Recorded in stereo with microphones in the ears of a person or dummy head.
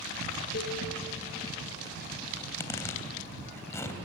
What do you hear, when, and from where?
0.5 s a cowbell: 55° left (ahead or behind), 3.5 m
2.4 s a zipper: 15° left (ahead or behind), 3 m